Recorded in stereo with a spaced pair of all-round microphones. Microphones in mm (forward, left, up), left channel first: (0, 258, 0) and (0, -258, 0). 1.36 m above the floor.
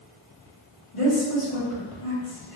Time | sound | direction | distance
0.9 | a woman speaking | 75° left (ahead or behind) | 1.5 m